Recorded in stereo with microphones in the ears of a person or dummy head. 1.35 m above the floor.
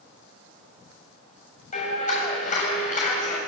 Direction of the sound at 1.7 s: 40° left (ahead or behind).